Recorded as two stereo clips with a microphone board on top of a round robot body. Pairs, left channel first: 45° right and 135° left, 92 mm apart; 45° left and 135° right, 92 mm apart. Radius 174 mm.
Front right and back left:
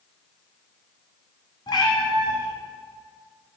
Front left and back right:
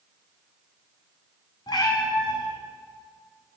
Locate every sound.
1.7 s a cat meowing: straight ahead, 0.8 m